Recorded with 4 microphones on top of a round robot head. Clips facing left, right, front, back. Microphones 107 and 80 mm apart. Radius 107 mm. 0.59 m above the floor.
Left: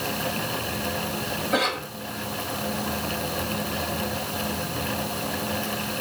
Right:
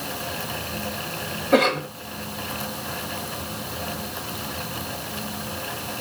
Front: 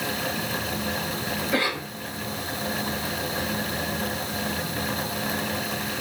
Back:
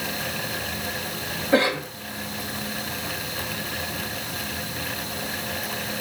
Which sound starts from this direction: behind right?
A cough, at 1.5 s.